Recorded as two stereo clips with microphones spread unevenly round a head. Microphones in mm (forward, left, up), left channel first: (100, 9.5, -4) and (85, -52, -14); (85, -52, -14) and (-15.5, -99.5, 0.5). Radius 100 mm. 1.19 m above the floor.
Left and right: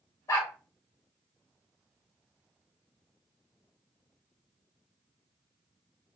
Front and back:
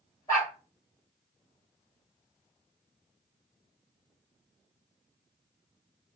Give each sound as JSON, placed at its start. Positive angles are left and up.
{"t": 0.3, "sound": "a dog barking", "azimuth_deg": 100, "distance_m": 1.8}